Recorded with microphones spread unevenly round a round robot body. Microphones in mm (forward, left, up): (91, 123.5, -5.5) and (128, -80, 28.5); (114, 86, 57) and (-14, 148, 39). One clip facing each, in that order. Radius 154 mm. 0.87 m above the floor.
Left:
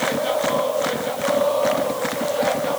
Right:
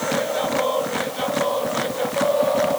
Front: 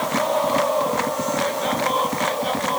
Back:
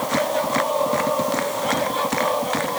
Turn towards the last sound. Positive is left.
No sound to turn to.